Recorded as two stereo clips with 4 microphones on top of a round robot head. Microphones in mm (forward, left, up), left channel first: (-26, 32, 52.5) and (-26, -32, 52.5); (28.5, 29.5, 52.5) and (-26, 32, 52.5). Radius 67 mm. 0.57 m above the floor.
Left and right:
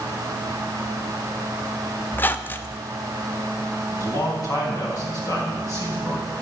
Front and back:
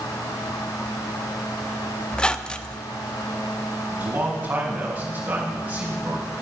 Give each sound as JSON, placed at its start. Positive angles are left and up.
{"t": 2.1, "sound": "a squeak", "azimuth_deg": 60, "distance_m": 0.6}
{"t": 3.9, "sound": "a man speaking", "azimuth_deg": 115, "distance_m": 3.5}